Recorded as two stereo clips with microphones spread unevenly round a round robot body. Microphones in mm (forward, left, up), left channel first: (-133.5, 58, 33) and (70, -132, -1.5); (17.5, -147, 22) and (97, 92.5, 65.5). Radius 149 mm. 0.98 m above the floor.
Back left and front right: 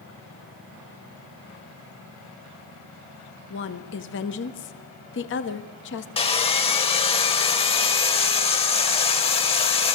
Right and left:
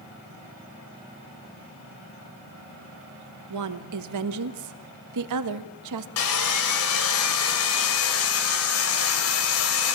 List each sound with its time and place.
3.5 s a woman speaking: 80° left, 1.4 m
6.2 s sawing: 155° right, 1.8 m